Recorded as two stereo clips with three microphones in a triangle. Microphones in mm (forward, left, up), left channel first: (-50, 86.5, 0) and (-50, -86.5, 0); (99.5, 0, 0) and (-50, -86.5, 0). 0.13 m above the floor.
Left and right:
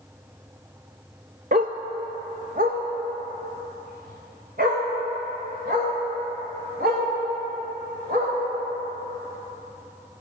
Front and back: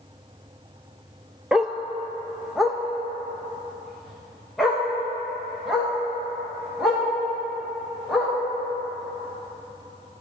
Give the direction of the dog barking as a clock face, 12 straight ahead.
2 o'clock.